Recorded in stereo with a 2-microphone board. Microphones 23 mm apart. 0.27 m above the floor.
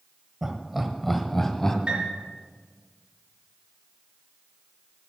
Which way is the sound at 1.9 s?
50° right (ahead or behind).